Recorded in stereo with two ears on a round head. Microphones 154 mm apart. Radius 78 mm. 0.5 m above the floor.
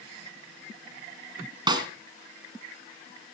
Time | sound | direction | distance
1.7 | a snare drum | 25° right (ahead or behind) | 2 m